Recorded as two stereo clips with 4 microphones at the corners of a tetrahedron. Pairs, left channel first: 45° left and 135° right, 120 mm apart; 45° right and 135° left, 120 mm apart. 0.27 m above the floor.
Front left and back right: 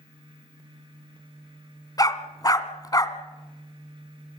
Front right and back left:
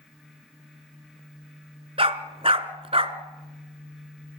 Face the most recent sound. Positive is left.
turn(degrees=100)